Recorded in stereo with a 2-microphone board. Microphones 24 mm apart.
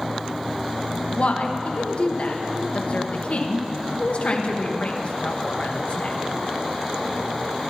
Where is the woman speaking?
55° left (ahead or behind), 1.3 m.